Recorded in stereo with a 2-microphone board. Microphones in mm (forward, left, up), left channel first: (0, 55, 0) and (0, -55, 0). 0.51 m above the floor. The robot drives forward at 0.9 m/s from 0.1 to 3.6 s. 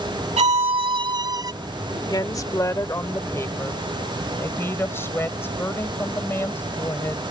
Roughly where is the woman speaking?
Left.